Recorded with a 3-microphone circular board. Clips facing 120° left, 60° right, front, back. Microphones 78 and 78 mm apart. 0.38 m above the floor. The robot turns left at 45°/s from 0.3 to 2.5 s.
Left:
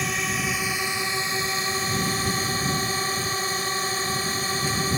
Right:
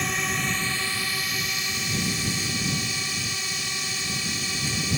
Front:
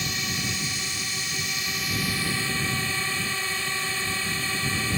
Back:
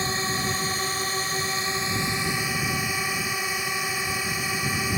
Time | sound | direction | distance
0.0 | a drone | 150° right | ?